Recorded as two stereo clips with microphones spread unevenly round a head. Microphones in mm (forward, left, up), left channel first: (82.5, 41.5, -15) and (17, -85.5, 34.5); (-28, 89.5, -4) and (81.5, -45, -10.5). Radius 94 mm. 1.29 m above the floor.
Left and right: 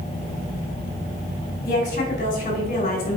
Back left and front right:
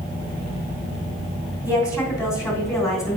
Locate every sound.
1.6 s a woman speaking: 55° left, 2.5 m